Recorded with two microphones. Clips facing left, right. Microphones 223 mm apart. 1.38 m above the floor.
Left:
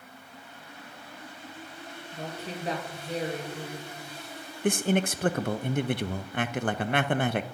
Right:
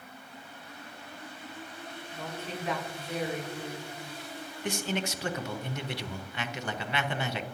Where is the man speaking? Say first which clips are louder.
Left 7 dB; 55° left (ahead or behind), 0.5 m.